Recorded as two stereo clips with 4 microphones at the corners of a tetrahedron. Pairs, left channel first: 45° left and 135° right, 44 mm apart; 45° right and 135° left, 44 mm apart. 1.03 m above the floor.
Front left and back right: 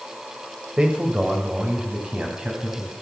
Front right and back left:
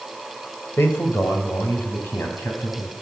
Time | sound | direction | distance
0.8 | a man speaking | 65° right | 4 m